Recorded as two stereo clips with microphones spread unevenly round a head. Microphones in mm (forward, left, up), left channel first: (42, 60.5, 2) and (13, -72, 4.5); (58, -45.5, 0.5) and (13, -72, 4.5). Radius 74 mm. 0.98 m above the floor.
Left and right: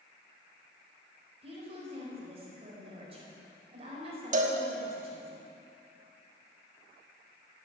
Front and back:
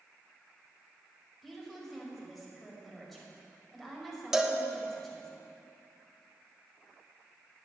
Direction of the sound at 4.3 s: 70° right.